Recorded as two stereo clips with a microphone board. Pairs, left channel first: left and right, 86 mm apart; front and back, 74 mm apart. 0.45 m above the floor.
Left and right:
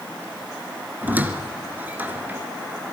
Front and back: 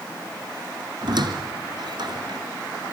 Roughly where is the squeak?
Behind.